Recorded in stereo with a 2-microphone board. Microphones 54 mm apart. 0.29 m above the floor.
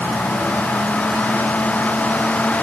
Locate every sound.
Only background noise.